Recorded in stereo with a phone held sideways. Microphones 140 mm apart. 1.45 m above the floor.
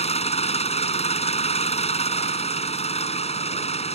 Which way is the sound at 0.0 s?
50° left (ahead or behind).